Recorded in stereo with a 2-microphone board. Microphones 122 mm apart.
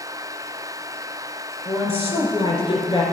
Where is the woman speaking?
50° left (ahead or behind), 2.5 m.